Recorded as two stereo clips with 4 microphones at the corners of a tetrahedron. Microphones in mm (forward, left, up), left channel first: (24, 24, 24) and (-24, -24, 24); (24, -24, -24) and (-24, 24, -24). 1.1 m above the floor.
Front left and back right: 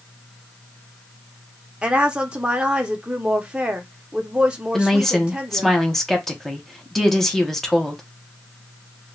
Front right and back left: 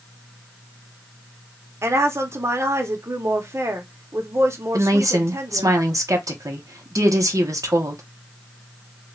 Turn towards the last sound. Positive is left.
turn(degrees=130)